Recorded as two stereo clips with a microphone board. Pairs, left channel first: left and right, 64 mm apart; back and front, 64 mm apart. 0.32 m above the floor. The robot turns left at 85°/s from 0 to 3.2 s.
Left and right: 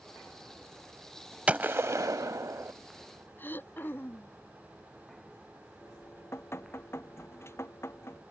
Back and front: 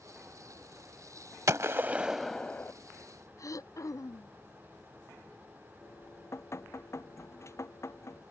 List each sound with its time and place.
1.5 s a gunshot: 25° right; by 2.7 s 130° right
3.4 s throat clearing: 150° left
5.8 s dripping: 135° left